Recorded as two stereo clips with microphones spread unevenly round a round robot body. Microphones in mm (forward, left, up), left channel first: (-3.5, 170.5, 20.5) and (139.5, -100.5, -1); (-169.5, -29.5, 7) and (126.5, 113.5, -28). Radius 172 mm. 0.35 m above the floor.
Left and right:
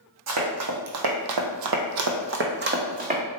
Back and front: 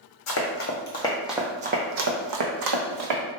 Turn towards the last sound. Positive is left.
turn(degrees=5)